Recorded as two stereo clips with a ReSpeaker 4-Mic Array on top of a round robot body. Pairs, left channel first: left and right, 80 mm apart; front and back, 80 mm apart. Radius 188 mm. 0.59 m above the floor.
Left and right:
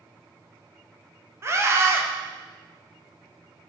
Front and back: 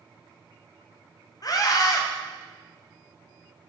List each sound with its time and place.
1.4 s a scream: 35° right, 2 m